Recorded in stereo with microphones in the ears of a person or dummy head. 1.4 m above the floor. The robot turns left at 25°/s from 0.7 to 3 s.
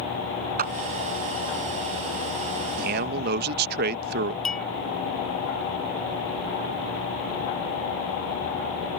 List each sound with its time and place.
0.6 s a clap: 45° right (ahead or behind)
2.8 s a man speaking: 55° right (ahead or behind); by 4.3 s 60° right (ahead or behind)
4.5 s a clink: 5° left (ahead or behind)